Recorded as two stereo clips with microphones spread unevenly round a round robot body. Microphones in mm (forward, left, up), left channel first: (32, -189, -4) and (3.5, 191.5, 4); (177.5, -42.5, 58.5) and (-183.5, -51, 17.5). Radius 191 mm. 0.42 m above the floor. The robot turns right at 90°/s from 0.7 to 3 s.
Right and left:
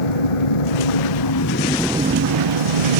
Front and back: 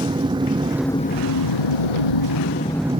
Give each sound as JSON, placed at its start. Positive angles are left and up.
{"t": 0.0, "sound": "an engine running", "azimuth_deg": -100}